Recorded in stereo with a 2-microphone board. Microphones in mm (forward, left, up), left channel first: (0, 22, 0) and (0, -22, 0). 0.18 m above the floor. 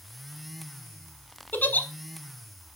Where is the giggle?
45° left (ahead or behind), 0.9 m.